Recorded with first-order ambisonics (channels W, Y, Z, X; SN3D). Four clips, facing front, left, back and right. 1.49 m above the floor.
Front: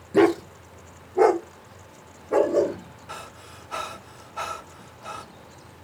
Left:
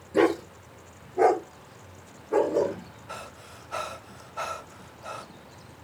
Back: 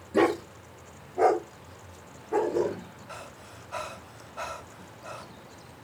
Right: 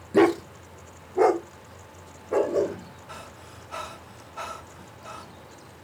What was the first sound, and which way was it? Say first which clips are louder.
A dog barking: right 3 dB, front 5 dB; 50° right.